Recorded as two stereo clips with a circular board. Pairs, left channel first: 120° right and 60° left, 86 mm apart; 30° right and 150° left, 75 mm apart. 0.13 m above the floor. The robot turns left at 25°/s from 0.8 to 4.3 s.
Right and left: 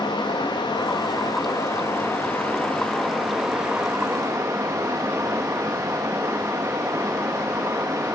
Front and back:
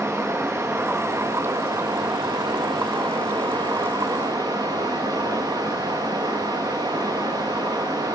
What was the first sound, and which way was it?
Running water, 150° right.